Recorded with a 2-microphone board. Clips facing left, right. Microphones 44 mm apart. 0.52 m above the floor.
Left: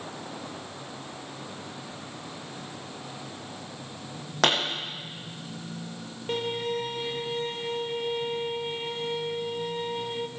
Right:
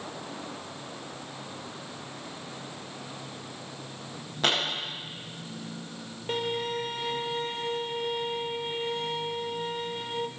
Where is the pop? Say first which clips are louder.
Left 3 dB; 80° left, 8 m.